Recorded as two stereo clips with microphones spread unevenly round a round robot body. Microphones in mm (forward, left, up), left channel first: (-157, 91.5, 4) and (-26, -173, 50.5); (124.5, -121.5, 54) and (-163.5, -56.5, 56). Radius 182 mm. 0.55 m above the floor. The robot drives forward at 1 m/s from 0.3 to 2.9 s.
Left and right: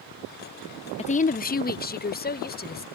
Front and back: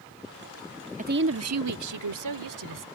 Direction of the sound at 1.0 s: 130° left.